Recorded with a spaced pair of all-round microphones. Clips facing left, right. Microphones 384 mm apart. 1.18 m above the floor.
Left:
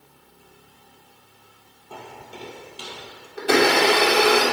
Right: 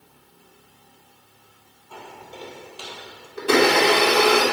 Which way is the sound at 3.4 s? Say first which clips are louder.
Right 1 dB; 5° right (ahead or behind).